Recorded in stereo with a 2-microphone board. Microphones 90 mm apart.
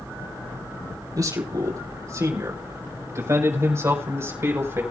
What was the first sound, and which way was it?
A man speaking, 40° right (ahead or behind).